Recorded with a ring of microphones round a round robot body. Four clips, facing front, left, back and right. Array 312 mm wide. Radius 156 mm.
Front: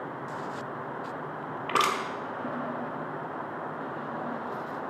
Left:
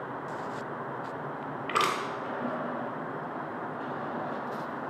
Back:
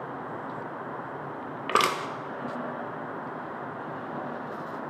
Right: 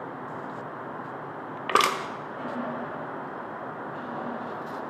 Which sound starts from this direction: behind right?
Crushing, at 1.7 s.